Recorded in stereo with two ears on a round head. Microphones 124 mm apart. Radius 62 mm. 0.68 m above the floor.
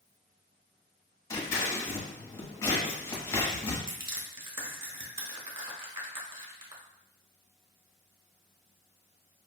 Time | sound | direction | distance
1.3 | scissors | 20° left (ahead or behind) | 1.2 m
3.9 | crushing | 40° right (ahead or behind) | 1.0 m